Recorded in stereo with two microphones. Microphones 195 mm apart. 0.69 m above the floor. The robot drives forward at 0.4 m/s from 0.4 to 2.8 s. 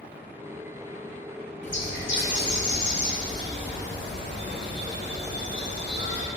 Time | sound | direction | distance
1.6 | a bird | 70° left (ahead or behind) | 0.8 m